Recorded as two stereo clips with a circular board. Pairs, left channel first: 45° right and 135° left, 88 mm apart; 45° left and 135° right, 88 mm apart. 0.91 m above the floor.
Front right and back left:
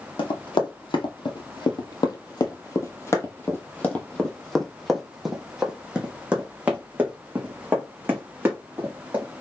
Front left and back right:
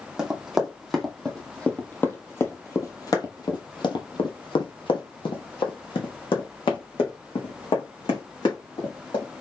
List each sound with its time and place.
0.2 s running footsteps: 50° right, 2.0 m; by 9.2 s 70° left, 3.5 m